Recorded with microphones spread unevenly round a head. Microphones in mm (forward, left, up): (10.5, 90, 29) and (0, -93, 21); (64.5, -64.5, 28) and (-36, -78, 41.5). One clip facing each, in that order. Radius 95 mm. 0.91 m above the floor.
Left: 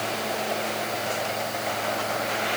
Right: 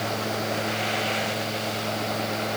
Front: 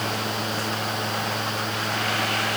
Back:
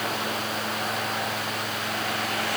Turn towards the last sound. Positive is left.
No sound to turn to.